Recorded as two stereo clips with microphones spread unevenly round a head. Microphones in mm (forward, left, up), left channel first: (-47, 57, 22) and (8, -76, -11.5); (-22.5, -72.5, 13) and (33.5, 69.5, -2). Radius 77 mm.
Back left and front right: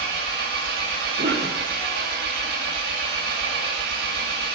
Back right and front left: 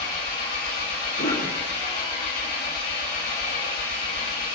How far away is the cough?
About 2.5 m.